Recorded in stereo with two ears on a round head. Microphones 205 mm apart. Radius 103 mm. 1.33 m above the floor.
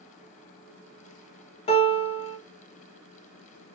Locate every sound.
1.7 s a piano: 25° left (ahead or behind), 0.7 m